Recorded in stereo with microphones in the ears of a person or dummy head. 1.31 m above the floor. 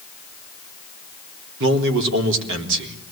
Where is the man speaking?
70° right (ahead or behind), 3.5 m.